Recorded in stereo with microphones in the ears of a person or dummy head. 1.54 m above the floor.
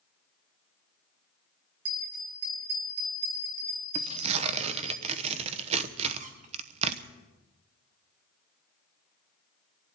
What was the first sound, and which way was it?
A bell, 85° right.